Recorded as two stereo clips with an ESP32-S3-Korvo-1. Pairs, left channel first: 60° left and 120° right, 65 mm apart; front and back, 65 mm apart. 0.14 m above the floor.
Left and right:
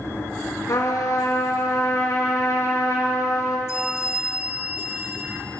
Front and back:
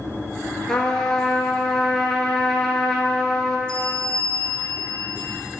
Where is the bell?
70° left, 0.8 m.